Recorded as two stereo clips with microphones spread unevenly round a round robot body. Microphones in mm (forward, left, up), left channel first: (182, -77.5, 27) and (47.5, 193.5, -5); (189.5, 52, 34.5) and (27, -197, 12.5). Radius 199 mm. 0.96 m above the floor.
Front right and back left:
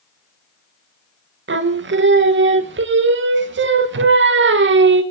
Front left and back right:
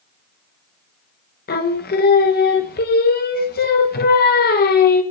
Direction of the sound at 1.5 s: 110° left.